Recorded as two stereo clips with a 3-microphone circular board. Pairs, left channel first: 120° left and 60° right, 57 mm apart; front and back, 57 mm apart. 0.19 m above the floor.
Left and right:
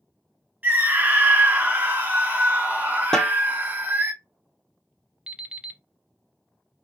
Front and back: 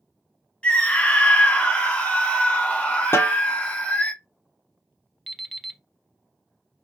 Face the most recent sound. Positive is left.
turn(degrees=-90)